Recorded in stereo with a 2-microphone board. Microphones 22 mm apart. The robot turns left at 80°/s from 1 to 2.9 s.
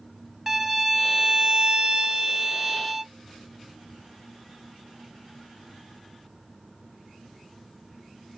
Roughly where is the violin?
Ahead.